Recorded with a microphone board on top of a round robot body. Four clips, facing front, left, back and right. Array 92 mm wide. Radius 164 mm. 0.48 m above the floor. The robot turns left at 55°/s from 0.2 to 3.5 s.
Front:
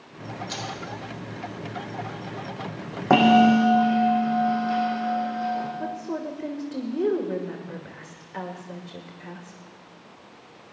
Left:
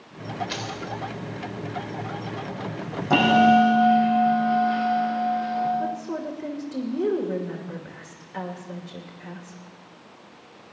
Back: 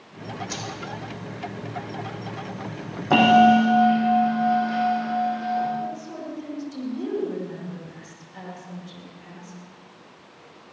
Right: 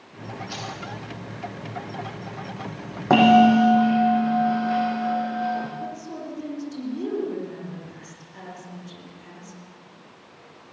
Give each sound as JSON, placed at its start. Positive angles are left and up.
{"t": 0.5, "sound": "keys jangling", "azimuth_deg": 110, "distance_m": 1.8}
{"t": 3.1, "sound": "a bell", "azimuth_deg": -40, "distance_m": 4.5}
{"t": 5.8, "sound": "a woman speaking", "azimuth_deg": 40, "distance_m": 2.5}